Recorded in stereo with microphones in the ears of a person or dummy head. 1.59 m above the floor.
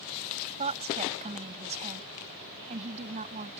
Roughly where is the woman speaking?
Right.